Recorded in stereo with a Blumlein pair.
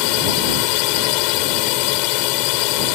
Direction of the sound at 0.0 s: 45° left.